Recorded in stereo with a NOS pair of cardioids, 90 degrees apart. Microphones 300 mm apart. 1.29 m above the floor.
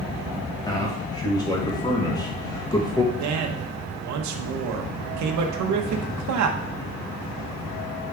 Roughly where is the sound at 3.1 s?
Right.